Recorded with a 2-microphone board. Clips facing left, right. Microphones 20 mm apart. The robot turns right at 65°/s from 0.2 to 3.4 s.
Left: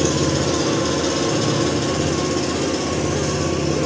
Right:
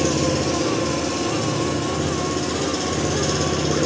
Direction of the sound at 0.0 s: 30° left.